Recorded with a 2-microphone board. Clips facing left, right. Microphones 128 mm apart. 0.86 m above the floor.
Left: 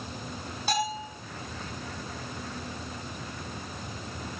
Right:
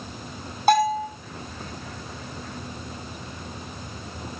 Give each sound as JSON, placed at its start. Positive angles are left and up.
{"t": 0.7, "sound": "a bell", "side_deg": -55, "distance_m": 7.5}